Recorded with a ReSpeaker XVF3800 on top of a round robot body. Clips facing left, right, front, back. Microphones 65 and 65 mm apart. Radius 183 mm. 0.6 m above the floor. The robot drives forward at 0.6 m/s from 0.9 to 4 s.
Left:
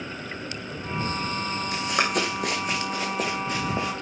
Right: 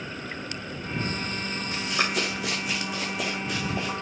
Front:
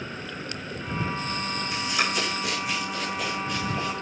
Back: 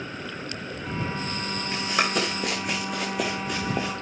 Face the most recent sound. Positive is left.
turn(degrees=150)